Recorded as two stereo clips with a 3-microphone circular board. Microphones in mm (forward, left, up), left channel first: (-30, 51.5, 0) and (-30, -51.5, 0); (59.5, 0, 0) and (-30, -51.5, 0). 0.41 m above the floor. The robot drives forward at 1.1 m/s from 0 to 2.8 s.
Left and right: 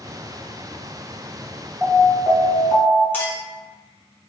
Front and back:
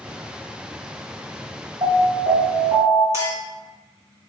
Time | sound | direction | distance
1.8 | an alarm | 165° right | 1.2 m
3.1 | a clink | 155° left | 1.2 m